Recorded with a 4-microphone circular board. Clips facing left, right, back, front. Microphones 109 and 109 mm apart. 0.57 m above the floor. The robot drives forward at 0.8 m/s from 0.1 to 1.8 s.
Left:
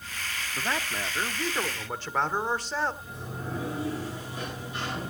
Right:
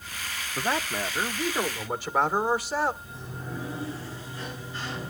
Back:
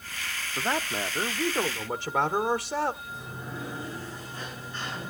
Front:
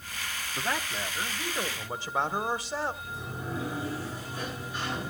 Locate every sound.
0.6 s a man speaking: 125° right, 0.6 m; by 2.9 s 170° right, 1.3 m
3.0 s a sliding door: 80° left, 9.5 m